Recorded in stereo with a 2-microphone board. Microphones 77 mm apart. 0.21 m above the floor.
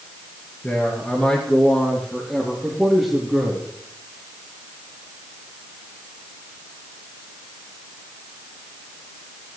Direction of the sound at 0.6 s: 20° left (ahead or behind).